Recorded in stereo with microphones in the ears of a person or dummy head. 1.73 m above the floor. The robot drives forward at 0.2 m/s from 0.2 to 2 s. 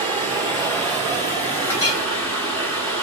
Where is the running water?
30° right (ahead or behind), 1.8 m; by 3.0 s 25° right (ahead or behind), 2 m.